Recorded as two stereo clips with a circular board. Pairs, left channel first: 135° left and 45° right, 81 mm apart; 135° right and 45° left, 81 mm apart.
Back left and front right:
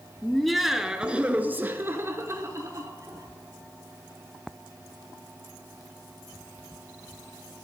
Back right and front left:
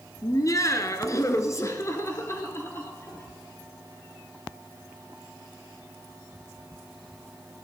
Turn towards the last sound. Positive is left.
turn(degrees=-75)